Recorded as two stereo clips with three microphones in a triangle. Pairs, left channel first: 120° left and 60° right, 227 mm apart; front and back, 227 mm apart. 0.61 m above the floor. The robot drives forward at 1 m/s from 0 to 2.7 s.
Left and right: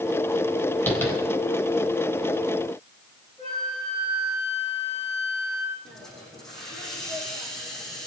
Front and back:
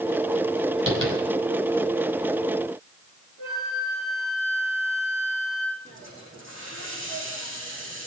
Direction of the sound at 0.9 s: 160° right.